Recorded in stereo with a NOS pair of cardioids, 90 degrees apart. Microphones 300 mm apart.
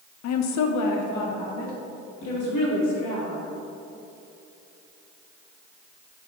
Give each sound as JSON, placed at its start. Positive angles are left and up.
{"t": 0.2, "sound": "a woman speaking", "azimuth_deg": 60, "distance_m": 0.7}